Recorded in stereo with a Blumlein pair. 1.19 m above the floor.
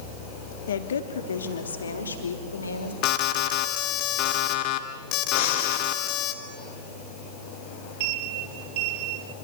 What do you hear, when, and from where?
0.7 s a woman speaking: 65° left, 2.5 m; by 2.9 s 75° left, 5 m
3.0 s an alarm: 40° left, 2 m
5.3 s breathing: 50° left, 3.5 m
8.0 s a sliding door: 50° right, 1.6 m